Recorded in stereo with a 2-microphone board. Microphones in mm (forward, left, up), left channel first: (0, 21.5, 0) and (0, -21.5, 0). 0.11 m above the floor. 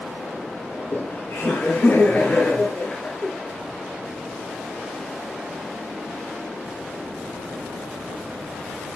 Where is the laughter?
55° left (ahead or behind), 2.5 m; by 3.3 s 30° left (ahead or behind), 2.0 m.